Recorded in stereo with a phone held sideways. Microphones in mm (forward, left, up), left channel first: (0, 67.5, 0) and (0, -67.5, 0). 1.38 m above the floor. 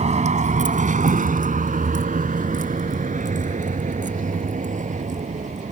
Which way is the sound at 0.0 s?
60° right (ahead or behind).